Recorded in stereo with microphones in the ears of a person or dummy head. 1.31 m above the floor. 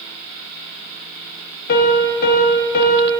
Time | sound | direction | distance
1.7 | a piano | 55° left (ahead or behind) | 1.2 m